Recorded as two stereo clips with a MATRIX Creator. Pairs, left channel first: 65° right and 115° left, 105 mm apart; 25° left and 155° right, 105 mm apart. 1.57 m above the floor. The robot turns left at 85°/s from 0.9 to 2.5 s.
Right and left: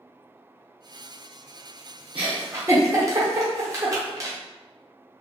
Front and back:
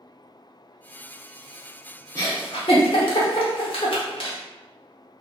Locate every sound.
2.1 s a giggle: 80° left, 0.7 m; by 4.4 s 50° left, 0.7 m